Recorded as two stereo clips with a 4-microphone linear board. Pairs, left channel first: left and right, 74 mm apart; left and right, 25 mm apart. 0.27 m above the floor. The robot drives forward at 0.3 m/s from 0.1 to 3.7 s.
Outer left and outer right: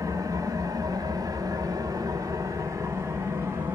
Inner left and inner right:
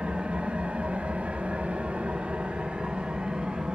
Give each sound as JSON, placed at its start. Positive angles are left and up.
{"t": 0.0, "sound": "an engine running", "side_deg": -45, "distance_m": 0.7}